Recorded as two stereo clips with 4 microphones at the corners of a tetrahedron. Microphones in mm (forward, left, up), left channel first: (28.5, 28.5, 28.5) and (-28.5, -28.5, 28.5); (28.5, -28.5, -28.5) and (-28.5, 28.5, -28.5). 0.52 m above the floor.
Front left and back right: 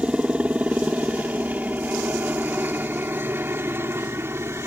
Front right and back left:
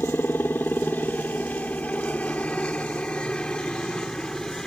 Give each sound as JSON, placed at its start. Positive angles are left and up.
{"t": 0.0, "sound": "a helicopter", "azimuth_deg": -75}